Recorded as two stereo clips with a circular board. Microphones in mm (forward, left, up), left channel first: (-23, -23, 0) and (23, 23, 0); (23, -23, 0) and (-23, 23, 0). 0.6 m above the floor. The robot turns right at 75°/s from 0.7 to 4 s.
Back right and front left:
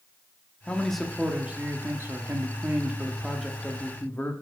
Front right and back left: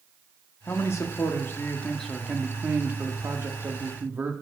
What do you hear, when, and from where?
0.7 s a man speaking: 65° right, 0.9 m; by 4.3 s straight behind, 0.9 m